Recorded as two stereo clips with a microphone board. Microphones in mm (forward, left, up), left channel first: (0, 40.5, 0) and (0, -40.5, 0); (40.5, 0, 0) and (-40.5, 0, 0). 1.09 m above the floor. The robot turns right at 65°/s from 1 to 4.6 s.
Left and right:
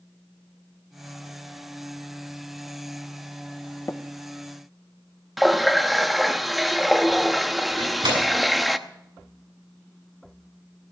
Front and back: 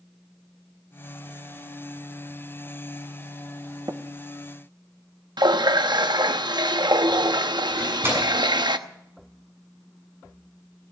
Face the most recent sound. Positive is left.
turn(degrees=-120)